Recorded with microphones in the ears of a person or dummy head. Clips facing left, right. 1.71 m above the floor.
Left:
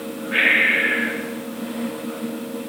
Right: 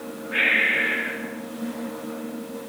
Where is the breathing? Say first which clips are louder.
Left 3 dB; 60° left (ahead or behind), 1.1 m.